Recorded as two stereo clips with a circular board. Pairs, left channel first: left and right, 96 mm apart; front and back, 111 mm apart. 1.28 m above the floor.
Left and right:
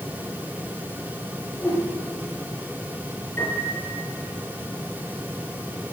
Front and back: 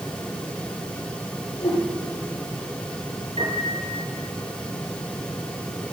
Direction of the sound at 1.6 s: 20° left.